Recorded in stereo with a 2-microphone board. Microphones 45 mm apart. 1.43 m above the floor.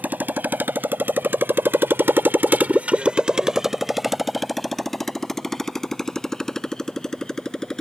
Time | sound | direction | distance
0.0 | a motorcycle | 40° right (ahead or behind) | ?